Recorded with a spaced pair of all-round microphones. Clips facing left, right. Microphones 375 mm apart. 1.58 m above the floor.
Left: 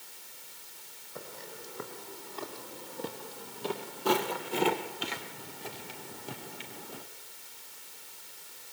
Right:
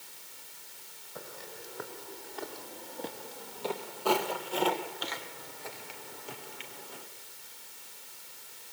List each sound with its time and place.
1.1 s footsteps: 5° left (ahead or behind), 4.5 m; by 7.0 s 60° left (ahead or behind), 3 m